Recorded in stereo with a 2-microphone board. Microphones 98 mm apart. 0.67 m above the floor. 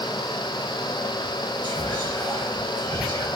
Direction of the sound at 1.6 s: 50° right (ahead or behind).